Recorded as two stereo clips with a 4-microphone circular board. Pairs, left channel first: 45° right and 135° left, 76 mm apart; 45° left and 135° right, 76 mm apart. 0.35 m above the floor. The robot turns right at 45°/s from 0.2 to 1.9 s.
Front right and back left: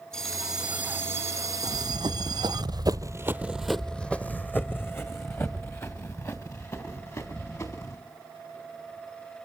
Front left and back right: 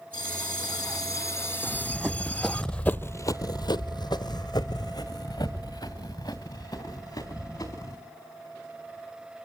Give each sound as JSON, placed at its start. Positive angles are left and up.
{"t": 0.1, "sound": "a bell", "azimuth_deg": 40, "distance_m": 0.6}
{"t": 1.6, "sound": "running footsteps", "azimuth_deg": 140, "distance_m": 1.5}